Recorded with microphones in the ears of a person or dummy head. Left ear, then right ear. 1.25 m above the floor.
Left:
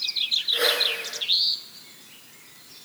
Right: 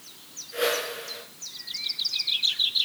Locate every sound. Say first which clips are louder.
0.5 s a whoosh: left 1 dB; 20° left (ahead or behind), 5.5 m